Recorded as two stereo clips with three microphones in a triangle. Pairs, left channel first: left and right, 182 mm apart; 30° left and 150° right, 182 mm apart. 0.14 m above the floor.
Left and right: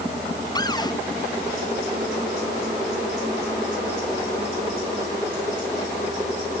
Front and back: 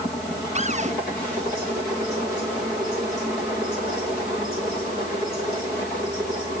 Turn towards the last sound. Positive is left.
turn(degrees=160)